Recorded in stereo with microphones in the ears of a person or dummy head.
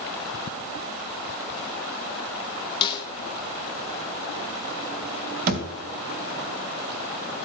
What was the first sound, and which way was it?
A snare drum, 30° left (ahead or behind).